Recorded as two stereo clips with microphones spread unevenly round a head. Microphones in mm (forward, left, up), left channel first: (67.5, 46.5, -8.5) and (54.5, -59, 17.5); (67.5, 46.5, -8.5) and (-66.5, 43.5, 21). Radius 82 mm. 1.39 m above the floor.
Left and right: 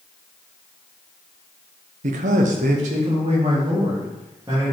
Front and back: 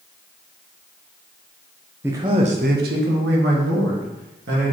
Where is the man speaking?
95° right, 0.8 m; by 4.7 s 175° right, 2.5 m.